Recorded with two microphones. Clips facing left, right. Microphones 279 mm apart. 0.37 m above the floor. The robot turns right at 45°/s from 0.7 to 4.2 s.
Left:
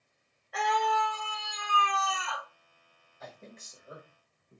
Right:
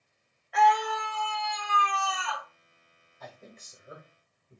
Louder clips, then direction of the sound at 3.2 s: Even; 5° left (ahead or behind).